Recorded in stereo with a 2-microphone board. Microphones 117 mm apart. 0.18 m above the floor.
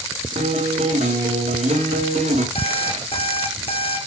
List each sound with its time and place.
0.3 s a guitar: 85° right, 6 m
2.5 s an alarm clock: 55° left (ahead or behind), 4.5 m